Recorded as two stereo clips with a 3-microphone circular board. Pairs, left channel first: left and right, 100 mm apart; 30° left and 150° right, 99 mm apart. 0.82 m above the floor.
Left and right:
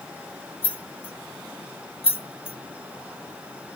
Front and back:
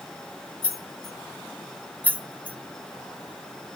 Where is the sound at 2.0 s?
105° left, 0.7 m.